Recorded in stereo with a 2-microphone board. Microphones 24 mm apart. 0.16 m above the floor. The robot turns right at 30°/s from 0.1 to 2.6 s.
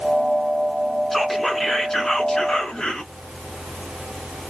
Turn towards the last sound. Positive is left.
turn(degrees=50)